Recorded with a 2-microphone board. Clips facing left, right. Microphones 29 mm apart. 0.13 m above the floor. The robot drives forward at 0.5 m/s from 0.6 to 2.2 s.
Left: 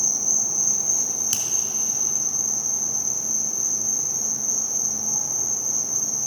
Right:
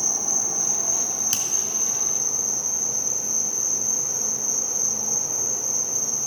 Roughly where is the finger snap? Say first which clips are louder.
Right 1 dB; centre.